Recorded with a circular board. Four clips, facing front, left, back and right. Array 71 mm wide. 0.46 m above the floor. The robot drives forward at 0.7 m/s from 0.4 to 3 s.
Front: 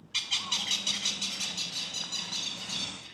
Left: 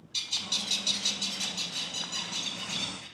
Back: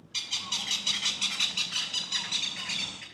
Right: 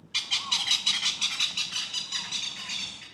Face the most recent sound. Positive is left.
turn(degrees=-165)